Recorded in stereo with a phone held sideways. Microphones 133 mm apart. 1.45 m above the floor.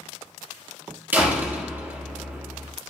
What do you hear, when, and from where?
1.1 s a door slam: 15° right (ahead or behind), 1.5 m